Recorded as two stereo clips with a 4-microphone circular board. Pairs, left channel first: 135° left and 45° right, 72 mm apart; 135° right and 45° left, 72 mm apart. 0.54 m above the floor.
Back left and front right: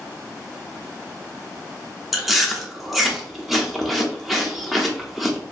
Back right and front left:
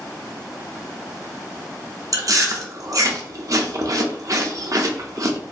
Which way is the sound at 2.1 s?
40° left.